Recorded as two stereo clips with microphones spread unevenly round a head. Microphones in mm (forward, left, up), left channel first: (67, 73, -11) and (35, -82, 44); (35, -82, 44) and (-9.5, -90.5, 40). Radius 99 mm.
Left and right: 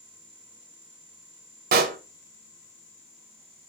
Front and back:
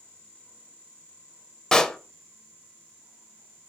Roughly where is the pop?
Right.